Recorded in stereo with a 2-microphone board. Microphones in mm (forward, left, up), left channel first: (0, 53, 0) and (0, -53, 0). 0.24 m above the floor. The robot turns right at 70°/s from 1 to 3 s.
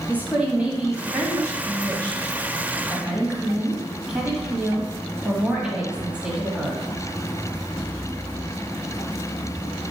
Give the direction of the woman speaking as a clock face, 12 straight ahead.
5 o'clock.